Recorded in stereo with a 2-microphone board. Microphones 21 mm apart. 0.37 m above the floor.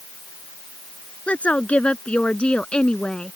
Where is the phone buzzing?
I don't hear a phone buzzing.